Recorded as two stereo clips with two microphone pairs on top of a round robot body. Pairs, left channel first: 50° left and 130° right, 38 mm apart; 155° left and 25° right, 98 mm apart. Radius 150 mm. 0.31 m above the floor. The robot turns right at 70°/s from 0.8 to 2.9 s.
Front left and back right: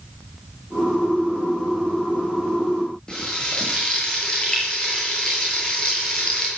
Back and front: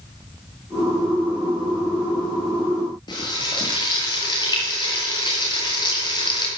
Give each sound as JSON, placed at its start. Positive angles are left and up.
{"t": 3.1, "sound": "frying", "azimuth_deg": 120, "distance_m": 9.5}